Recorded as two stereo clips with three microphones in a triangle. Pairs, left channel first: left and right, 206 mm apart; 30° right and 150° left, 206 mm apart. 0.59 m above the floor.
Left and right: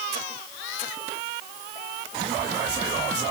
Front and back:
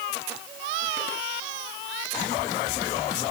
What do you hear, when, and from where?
Only background noise.